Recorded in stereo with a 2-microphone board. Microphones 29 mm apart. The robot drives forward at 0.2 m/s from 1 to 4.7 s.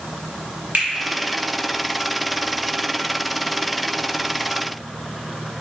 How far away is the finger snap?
About 1.8 m.